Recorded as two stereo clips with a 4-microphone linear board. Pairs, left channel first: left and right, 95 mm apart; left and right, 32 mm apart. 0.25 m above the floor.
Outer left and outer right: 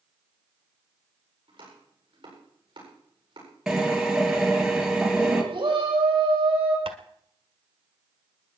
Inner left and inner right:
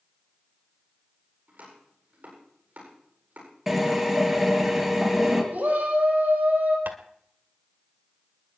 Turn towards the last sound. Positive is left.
turn(degrees=-80)